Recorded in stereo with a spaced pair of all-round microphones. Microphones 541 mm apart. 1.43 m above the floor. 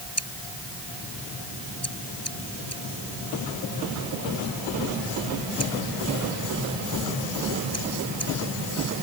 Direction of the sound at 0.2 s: 25° left (ahead or behind).